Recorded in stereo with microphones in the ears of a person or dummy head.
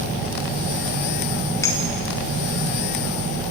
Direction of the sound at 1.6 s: 20° left (ahead or behind).